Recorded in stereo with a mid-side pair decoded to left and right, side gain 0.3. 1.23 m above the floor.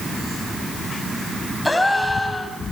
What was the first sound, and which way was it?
A gasp, 20° left.